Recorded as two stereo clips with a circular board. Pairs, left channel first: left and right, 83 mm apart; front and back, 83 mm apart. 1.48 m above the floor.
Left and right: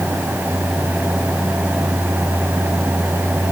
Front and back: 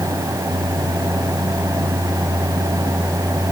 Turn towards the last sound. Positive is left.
No sound to turn to.